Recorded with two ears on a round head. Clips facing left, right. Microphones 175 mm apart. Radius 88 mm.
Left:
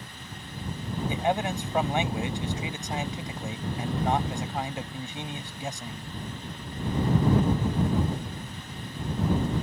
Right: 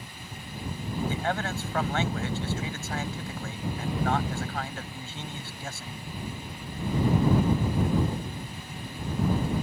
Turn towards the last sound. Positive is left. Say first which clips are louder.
# left 7 dB
turn(degrees=15)  # may be behind; listen again after turning